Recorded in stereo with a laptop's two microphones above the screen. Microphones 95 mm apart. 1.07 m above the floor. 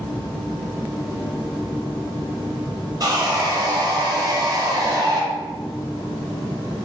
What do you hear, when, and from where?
3.0 s sawing: 40° right (ahead or behind), 0.7 m